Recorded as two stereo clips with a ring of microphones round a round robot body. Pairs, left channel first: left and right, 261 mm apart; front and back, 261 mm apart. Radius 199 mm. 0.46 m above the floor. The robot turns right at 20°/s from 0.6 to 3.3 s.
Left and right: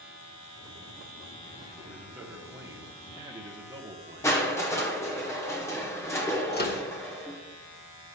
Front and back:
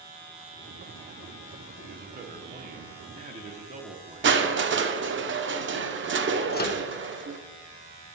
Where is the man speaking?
175° right, 1.0 m; by 4.5 s 145° right, 1.0 m.